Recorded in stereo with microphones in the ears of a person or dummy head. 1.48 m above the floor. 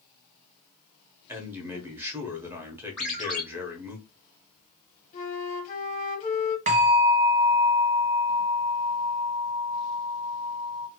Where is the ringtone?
5° left (ahead or behind), 0.7 m.